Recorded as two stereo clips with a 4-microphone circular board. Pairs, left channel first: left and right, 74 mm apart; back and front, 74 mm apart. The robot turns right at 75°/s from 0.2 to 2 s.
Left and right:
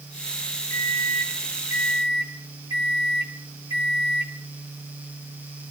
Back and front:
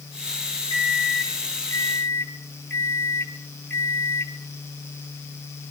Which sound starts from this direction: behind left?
A microwave, at 0.7 s.